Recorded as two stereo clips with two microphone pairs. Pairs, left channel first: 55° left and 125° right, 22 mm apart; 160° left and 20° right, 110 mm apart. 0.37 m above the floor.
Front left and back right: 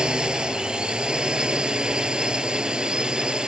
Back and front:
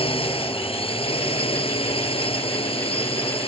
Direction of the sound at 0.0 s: 165° right.